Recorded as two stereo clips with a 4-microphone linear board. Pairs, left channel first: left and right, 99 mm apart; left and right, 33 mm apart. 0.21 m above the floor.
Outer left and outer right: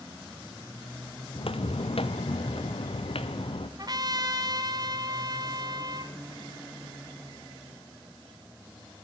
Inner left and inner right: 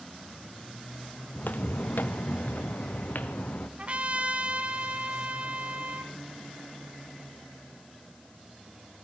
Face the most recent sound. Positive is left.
turn(degrees=-45)  # may be behind; listen again after turning